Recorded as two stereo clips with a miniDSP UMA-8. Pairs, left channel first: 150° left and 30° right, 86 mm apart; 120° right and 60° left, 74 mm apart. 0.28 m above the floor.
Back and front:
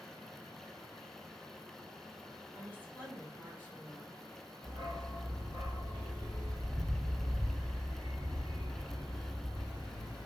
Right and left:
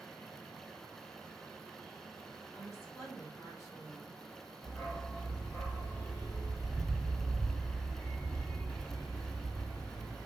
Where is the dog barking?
60° right, 1.5 m.